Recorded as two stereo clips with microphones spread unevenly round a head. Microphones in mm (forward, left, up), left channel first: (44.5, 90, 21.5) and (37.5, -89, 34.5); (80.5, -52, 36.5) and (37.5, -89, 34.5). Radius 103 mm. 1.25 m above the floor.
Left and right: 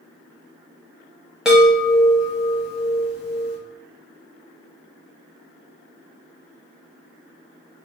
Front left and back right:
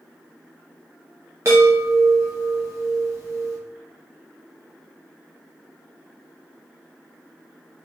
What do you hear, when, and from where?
1.4 s a chime: 175° right, 0.7 m